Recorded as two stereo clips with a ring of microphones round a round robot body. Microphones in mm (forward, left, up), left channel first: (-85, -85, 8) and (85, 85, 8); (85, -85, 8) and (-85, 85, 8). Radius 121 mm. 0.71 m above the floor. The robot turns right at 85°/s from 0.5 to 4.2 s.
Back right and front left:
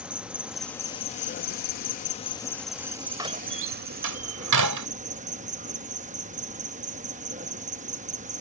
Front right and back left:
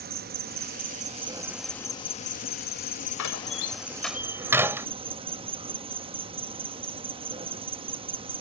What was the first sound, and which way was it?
An insect, 130° left.